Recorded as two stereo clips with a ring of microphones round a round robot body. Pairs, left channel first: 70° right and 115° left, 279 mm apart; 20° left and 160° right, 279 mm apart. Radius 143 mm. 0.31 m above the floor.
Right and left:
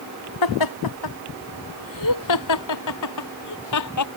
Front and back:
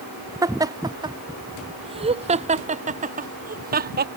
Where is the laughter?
80° right; by 4.1 s 100° right.